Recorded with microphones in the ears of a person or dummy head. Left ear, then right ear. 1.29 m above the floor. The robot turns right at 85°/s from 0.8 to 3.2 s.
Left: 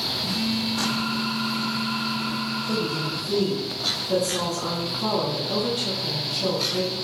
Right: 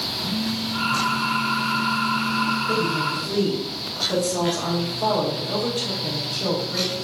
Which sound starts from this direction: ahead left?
A phone buzzing, at 0.2 s.